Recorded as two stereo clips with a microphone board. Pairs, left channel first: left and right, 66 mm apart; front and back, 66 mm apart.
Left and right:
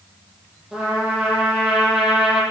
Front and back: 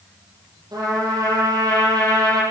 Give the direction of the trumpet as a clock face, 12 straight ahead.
6 o'clock.